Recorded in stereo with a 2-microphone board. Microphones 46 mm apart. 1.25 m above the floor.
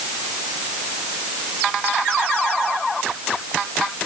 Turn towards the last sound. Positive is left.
No sound to turn to.